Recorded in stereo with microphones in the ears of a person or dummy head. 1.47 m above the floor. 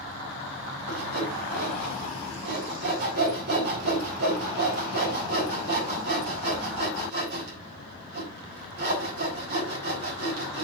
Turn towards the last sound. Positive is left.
turn(degrees=-65)  # may be behind; listen again after turning